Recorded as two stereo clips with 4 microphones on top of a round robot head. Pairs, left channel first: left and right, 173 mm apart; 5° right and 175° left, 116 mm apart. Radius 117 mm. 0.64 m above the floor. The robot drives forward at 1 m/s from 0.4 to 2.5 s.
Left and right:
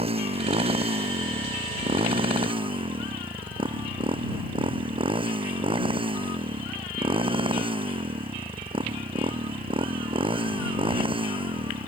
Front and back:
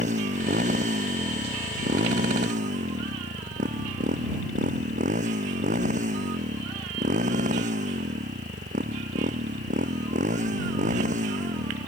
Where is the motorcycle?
145° right; by 11.9 s 150° right.